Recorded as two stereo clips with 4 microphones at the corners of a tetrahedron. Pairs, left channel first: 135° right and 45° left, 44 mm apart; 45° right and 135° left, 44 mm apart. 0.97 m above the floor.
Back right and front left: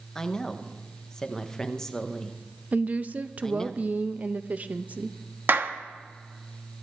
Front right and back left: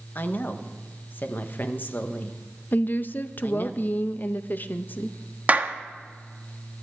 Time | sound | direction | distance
0.1 | a woman speaking | 60° right | 1.0 m
2.7 | a woman speaking | 5° right | 0.6 m
5.5 | a clap | 80° left | 0.9 m